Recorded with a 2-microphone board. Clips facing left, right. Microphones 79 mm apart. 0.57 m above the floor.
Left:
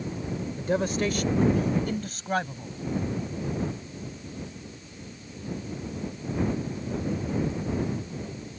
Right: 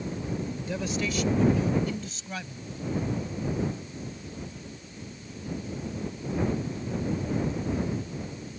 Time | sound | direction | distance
0.6 | a man speaking | 45° left (ahead or behind) | ?